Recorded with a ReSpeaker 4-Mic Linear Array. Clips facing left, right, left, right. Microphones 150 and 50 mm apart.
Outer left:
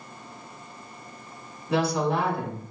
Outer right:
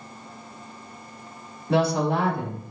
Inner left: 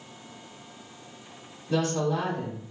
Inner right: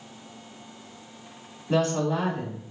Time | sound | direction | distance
1.7 | a woman speaking | 35° right (ahead or behind) | 1.6 m